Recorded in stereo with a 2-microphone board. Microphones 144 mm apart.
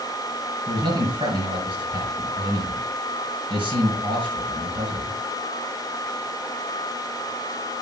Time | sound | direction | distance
0.7 | a man speaking | 35° right (ahead or behind) | 6 m